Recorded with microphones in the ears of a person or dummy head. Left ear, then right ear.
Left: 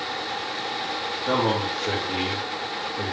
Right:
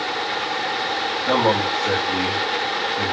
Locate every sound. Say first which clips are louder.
1.3 s a man speaking: right 4 dB; 40° right (ahead or behind), 2.5 m